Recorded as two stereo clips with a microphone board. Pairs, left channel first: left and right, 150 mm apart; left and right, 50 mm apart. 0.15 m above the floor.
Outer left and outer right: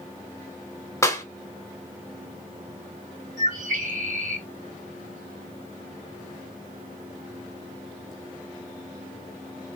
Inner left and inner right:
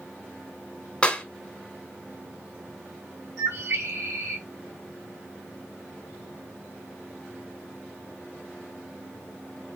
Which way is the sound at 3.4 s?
60° right (ahead or behind).